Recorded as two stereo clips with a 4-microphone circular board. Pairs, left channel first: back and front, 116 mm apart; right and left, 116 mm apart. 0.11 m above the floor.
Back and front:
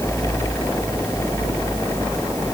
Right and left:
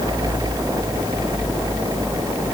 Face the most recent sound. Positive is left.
No sound to turn to.